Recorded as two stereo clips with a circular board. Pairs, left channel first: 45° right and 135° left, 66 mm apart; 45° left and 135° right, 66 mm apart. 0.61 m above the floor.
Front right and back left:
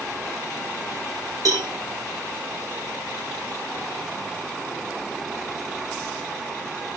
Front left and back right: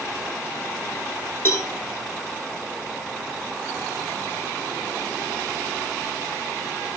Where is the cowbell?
100° left, 6 m.